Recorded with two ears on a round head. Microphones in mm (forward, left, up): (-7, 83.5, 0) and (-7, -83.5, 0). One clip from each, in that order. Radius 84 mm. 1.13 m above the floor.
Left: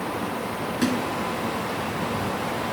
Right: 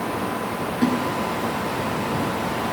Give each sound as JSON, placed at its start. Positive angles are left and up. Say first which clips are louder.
{"t": 0.8, "sound": "a splash", "louder": "right 3 dB", "side_deg": 55}